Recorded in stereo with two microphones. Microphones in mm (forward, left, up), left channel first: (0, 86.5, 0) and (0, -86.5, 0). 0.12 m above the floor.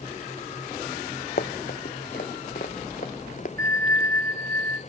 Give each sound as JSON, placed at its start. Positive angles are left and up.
{"t": 1.4, "sound": "running footsteps", "side_deg": 60, "distance_m": 0.7}
{"t": 3.6, "sound": "a bell", "side_deg": -70, "distance_m": 1.5}